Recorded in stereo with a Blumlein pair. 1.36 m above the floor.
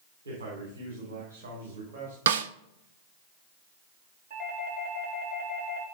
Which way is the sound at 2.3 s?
65° right.